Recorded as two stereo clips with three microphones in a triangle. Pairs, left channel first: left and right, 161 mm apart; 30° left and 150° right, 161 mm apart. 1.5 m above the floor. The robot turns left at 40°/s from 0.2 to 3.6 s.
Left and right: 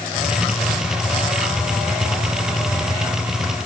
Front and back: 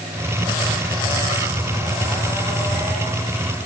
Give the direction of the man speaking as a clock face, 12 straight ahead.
I don't hear a man speaking.